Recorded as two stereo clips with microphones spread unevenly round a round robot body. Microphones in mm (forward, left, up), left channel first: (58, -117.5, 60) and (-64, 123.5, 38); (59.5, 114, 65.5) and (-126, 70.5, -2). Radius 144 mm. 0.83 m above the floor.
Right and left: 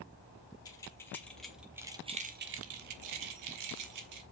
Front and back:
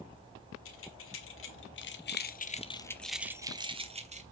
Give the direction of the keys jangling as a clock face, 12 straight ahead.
12 o'clock.